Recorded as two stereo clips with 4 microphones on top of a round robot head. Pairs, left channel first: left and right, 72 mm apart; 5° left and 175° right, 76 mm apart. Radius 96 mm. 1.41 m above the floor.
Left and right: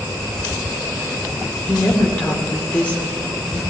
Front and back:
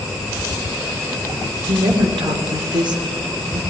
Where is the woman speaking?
165° left, 1.7 m.